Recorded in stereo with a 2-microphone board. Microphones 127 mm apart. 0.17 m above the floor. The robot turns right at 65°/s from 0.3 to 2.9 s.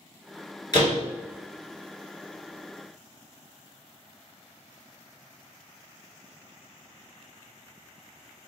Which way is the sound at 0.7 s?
35° left (ahead or behind).